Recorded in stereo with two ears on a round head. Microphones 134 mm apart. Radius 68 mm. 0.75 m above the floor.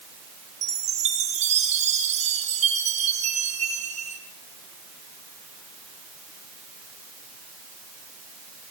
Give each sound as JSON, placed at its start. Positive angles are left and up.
{"t": 0.6, "sound": "a chime", "side_deg": -50, "distance_m": 6.0}